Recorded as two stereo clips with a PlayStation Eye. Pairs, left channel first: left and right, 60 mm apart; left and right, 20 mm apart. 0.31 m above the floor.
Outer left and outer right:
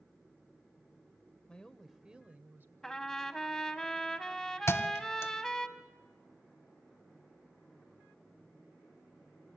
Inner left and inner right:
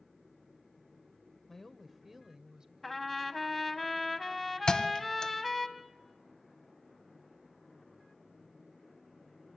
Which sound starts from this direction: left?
A thud, at 4.7 s.